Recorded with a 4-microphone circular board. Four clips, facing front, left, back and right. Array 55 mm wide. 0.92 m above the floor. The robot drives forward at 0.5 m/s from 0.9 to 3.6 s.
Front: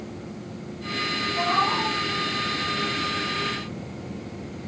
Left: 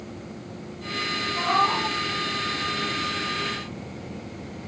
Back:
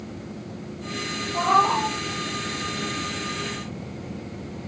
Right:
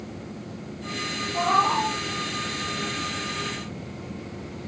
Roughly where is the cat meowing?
Behind right.